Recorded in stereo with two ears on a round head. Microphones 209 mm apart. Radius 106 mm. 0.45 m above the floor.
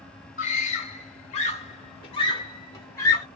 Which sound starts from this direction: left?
A scream, at 0.4 s.